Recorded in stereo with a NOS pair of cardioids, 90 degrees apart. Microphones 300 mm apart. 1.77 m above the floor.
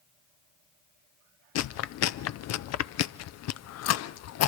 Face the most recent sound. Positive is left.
turn(degrees=60)